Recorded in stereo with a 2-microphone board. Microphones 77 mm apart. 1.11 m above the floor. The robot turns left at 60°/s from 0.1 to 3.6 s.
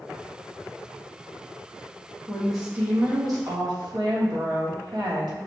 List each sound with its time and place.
2.3 s a woman speaking: 15° left, 1.5 m; by 5.5 s 65° right, 1.5 m